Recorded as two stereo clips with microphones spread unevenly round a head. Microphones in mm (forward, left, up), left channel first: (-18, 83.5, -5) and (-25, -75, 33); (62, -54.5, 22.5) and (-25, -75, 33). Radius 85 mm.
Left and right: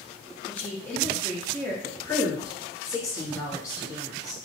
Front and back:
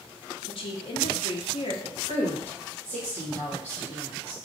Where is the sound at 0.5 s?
5° left, 0.7 m.